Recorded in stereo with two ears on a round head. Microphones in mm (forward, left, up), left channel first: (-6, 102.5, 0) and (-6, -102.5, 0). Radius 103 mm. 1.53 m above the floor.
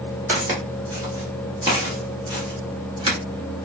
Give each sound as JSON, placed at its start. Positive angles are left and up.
{"t": 0.3, "sound": "footsteps", "side_deg": -10, "distance_m": 1.8}